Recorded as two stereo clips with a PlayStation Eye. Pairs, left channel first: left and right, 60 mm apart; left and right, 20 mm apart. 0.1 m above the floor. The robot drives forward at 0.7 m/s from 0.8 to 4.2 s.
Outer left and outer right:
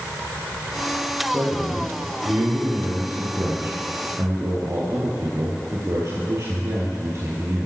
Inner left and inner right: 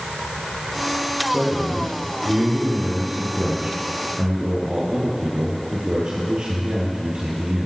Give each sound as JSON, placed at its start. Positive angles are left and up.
{"t": 1.3, "sound": "a man speaking", "side_deg": -35, "distance_m": 4.0}